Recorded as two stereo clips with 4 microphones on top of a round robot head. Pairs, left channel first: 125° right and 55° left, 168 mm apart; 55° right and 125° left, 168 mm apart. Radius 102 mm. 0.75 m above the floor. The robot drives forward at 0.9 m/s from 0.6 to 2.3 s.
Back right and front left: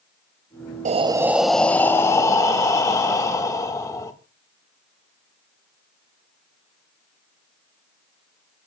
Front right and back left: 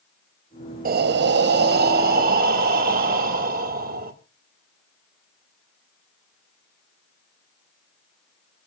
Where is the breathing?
95° left, 0.5 m; by 4.1 s 160° left, 1.4 m.